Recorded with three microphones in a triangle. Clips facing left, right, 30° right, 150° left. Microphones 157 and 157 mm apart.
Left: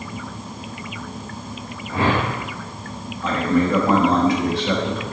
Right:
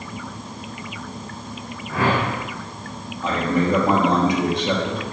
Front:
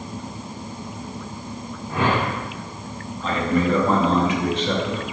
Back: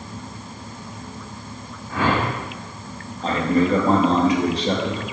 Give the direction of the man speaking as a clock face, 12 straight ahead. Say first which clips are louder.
Left 2 dB, back 2 dB; 5 o'clock.